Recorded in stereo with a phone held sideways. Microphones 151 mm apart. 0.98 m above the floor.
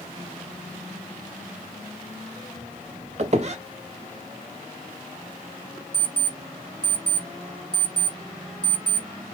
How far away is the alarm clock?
About 0.8 m.